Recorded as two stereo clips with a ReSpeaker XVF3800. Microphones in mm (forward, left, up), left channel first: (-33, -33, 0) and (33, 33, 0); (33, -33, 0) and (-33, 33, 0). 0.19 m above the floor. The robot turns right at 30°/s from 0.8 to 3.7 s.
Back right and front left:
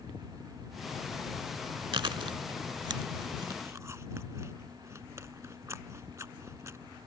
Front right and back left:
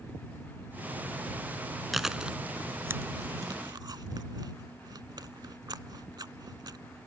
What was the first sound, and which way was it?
Chewing, 45° left.